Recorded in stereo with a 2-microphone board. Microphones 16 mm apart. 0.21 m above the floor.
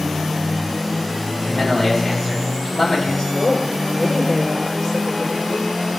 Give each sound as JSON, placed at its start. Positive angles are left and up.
{"t": 1.4, "sound": "a man speaking", "side_deg": 75, "distance_m": 5.5}
{"t": 3.3, "sound": "a woman speaking", "side_deg": 80, "distance_m": 6.5}